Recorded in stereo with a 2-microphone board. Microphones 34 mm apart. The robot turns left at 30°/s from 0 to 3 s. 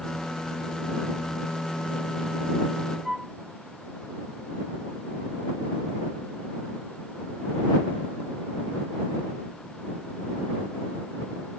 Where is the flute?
15° right (ahead or behind).